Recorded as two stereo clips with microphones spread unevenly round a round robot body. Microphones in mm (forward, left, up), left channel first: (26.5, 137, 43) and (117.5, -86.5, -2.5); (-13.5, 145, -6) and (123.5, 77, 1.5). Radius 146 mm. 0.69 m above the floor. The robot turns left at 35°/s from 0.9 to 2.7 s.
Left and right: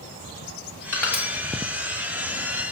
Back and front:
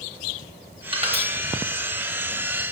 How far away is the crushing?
About 1.6 m.